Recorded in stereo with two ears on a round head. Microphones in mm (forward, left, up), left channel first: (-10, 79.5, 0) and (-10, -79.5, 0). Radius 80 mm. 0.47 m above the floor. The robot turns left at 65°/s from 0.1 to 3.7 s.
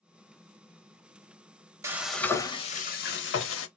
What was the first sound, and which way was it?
Frying, 165° right.